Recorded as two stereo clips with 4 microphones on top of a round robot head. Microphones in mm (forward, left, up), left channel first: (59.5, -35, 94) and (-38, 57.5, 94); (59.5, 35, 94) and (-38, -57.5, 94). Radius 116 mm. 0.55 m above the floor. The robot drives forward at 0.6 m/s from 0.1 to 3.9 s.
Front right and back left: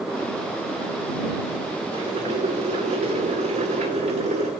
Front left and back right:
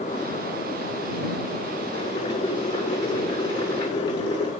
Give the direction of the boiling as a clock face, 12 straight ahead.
9 o'clock.